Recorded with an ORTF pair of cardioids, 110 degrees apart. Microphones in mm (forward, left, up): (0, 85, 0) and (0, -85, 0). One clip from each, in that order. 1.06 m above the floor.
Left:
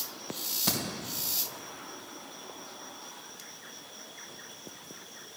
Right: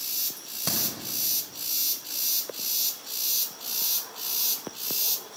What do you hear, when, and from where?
0.4 s a crack: 25° right, 3 m